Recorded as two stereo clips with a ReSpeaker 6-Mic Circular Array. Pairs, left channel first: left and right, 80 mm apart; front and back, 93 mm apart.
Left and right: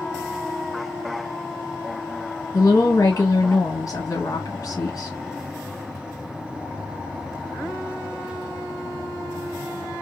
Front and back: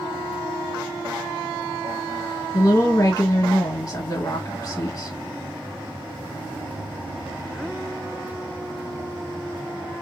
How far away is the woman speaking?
About 1.3 m.